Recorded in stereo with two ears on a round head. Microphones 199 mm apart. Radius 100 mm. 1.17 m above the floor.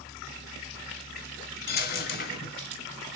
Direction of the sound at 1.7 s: 45° left (ahead or behind).